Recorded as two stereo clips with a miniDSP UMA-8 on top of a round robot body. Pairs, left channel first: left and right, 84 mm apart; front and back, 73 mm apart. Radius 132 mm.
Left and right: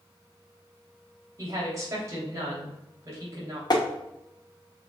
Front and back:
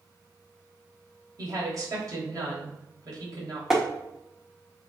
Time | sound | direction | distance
1.4 | a woman speaking | 145° right | 3.5 m
3.7 | tapping | 95° left | 1.6 m